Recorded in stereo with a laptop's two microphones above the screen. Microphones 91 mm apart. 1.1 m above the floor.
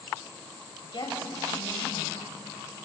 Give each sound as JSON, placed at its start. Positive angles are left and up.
{"t": 0.8, "sound": "a woman speaking", "side_deg": 60, "distance_m": 6.5}